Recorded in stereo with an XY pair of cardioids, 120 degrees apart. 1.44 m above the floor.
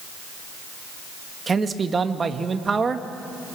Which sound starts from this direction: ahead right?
A man speaking, at 1.5 s.